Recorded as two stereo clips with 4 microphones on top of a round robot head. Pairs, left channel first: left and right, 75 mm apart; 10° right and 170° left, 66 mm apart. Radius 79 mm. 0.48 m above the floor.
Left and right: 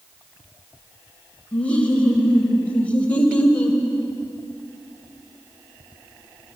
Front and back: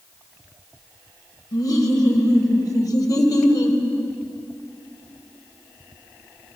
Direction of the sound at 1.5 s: 15° left.